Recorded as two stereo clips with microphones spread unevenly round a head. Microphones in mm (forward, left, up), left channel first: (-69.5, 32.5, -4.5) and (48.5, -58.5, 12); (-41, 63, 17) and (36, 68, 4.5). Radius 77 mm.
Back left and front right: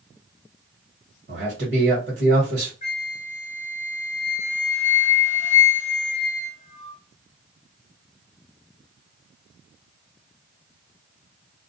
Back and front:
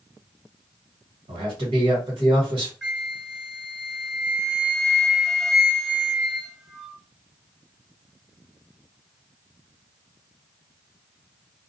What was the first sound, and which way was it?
A man speaking, straight ahead.